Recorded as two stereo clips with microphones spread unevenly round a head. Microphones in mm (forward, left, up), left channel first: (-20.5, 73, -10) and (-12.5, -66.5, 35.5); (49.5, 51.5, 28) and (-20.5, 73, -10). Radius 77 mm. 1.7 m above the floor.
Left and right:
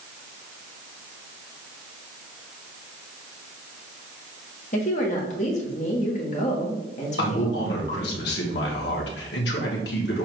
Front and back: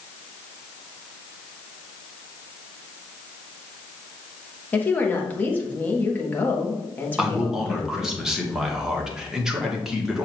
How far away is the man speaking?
About 1.8 m.